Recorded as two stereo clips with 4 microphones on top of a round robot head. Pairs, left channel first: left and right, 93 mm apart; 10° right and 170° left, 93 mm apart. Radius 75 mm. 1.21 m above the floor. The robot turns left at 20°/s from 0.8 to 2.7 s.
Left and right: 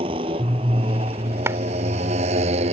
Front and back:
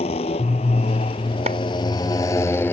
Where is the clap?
150° right; by 1.6 s 155° right.